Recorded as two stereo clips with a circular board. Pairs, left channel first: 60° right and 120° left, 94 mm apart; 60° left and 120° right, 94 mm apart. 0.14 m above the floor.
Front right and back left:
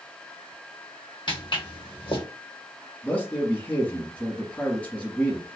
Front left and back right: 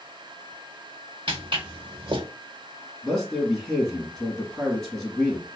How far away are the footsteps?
About 1.1 m.